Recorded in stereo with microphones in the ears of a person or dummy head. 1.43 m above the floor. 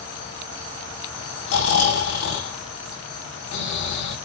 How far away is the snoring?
About 6.5 m.